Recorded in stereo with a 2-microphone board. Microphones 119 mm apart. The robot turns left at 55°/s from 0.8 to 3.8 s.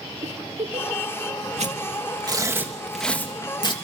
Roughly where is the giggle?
Right.